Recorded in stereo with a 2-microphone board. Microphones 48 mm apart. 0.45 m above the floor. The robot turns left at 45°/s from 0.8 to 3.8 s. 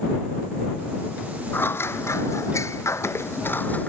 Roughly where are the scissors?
Behind left.